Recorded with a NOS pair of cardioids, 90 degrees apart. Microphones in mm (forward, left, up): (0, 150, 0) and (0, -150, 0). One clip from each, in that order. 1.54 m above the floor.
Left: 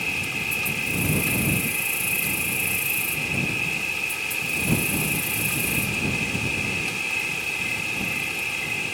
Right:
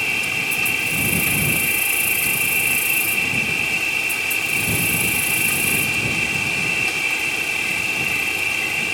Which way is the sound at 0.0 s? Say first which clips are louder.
Right 5 dB; 40° right.